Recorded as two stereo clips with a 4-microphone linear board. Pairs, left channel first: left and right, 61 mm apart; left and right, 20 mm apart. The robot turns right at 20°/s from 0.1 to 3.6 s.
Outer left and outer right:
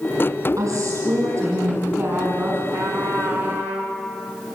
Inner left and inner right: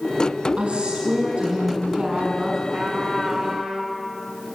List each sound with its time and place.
0.6 s a woman speaking: 75° right, 5.5 m; by 2.6 s 35° right, 5.5 m
2.7 s a trumpet: 65° right (ahead or behind), 10 m; by 4.0 s 50° right (ahead or behind), 10 m